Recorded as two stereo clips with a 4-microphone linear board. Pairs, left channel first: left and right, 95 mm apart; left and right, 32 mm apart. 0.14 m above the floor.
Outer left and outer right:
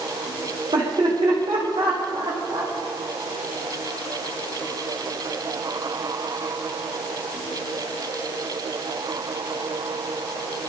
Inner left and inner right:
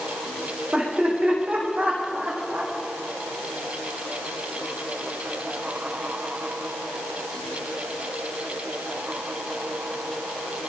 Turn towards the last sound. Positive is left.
turn(degrees=-70)  # may be behind; listen again after turning